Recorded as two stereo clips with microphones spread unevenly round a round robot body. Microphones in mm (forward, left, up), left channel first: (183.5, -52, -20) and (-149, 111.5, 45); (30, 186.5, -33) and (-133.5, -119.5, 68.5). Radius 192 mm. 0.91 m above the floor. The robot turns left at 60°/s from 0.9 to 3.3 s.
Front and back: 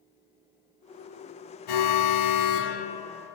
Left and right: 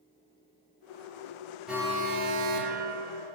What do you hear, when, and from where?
1.7 s an alarm: 25° right, 1.6 m; by 3.4 s 120° right, 1.6 m